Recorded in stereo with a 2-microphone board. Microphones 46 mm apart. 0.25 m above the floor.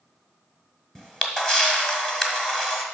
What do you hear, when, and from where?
0.9 s a camera shutter: 15° left (ahead or behind), 1.4 m